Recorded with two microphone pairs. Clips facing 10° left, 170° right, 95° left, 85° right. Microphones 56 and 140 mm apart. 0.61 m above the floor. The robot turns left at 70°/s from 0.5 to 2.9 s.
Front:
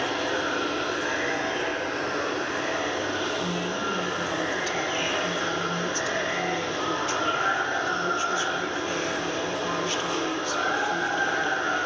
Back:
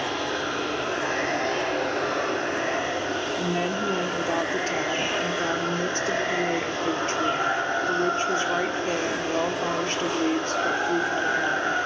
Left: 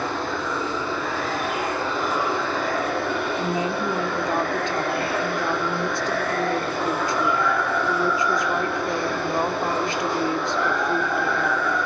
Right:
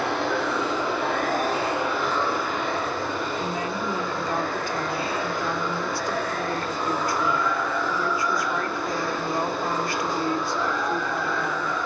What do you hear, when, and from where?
0.0 s running water: 70° right, 9 m; by 11.9 s 125° left, 9 m
3.4 s a woman speaking: 160° left, 1.6 m